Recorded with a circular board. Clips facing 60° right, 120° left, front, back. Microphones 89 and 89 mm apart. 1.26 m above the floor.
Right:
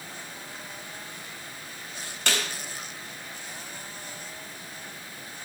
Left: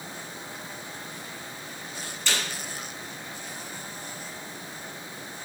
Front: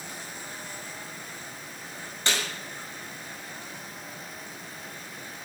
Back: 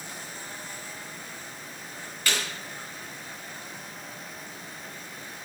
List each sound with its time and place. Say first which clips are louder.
2.3 s a snare drum: right 2 dB, front 1 dB; 60° right, 5.5 m